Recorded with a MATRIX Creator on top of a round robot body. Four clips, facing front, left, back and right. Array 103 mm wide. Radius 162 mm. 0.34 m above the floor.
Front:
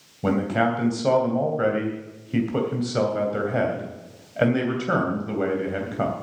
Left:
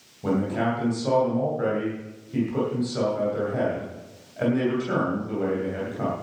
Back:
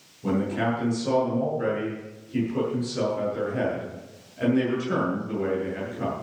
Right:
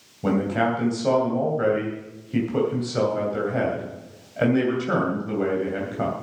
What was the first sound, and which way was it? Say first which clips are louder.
A man speaking: right 2 dB, front 3 dB; 20° right.